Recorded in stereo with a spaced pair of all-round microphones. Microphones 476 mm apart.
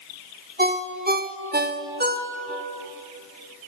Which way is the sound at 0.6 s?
20° right (ahead or behind).